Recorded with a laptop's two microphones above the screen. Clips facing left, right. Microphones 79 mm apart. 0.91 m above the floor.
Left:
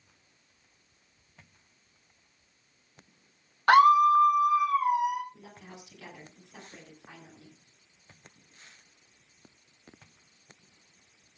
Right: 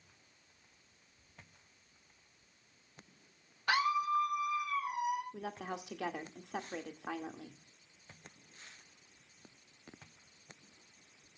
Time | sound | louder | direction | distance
3.7 | a scream | left 13 dB | 55° left (ahead or behind) | 0.7 m
5.3 | a woman speaking | right 7 dB | 85° right | 1.9 m